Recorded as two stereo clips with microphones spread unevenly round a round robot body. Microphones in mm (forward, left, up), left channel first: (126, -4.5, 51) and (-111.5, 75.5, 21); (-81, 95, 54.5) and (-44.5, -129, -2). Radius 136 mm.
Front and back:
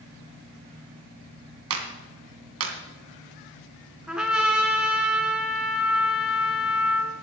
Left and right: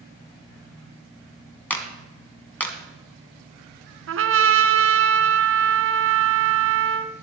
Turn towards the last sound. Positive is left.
turn(degrees=-110)